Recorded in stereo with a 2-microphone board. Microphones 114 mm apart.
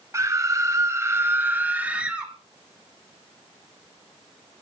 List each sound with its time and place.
0.1 s a scream: 30° right (ahead or behind), 1.6 m; by 2.3 s 10° right (ahead or behind), 2.5 m